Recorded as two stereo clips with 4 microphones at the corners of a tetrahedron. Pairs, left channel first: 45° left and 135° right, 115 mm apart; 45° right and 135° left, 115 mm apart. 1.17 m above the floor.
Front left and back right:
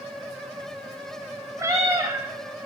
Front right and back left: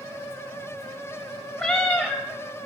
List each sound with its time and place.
1.6 s a cat meowing: 130° right, 1.0 m